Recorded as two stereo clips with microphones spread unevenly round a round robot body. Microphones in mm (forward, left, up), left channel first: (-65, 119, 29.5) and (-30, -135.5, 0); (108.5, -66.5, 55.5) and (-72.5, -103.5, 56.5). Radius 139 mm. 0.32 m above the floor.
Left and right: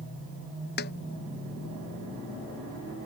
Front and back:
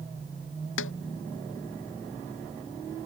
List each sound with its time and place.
0.8 s a snare drum: 40° left